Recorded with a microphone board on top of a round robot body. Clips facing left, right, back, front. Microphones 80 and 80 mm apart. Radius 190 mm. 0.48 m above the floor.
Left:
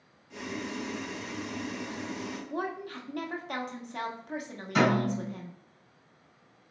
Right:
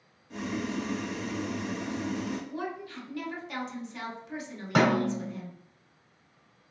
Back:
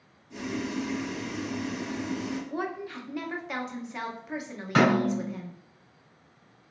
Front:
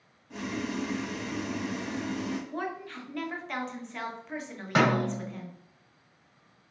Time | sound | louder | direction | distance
0.3 | boiling | right 4 dB, back 1 dB | 40° right | 0.6 m
2.5 | a woman speaking | left 2 dB, back 2 dB | 100° left | 1.1 m
4.8 | a snare drum | right 1 dB, back 3 dB | 70° right | 1.9 m